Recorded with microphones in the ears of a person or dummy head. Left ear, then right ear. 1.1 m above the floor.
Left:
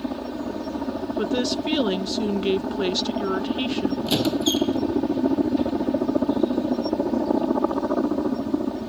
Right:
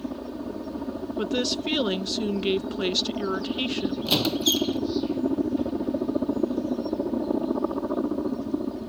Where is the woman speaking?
5° right (ahead or behind).